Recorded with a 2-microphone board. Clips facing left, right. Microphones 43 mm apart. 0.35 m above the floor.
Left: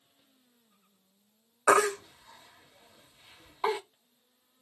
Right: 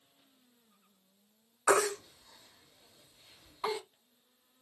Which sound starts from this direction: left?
A baby crying, at 1.7 s.